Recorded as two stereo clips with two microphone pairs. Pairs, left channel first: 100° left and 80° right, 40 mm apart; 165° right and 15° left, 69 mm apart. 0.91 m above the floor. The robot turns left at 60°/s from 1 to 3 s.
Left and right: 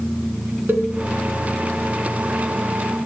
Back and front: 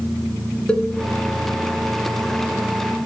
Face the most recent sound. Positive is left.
turn(degrees=145)